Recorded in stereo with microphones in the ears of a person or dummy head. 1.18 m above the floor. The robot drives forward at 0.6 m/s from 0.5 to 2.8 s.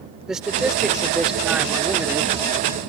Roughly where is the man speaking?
Centre.